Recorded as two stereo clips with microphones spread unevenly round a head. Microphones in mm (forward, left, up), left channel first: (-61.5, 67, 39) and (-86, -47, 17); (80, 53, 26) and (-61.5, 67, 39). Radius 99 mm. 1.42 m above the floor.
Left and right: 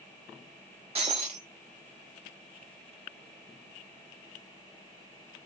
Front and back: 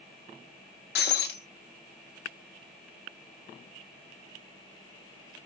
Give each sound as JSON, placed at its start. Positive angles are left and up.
{"t": 0.9, "sound": "breaking glass", "azimuth_deg": -35, "distance_m": 1.3}